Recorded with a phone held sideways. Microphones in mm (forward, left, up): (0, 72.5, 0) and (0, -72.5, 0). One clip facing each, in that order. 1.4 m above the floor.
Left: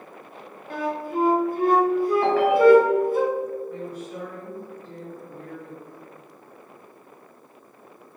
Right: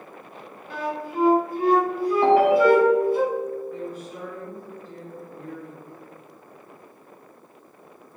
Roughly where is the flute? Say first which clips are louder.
Left 2 dB; left.